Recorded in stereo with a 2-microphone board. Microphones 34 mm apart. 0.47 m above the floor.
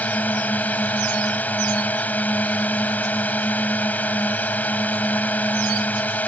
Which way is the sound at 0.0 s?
55° left (ahead or behind).